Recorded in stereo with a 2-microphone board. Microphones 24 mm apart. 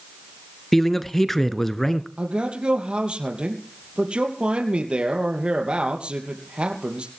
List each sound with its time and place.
0.7 s a man speaking: 10° left (ahead or behind), 1.1 m
2.2 s a man speaking: 50° right (ahead or behind), 3 m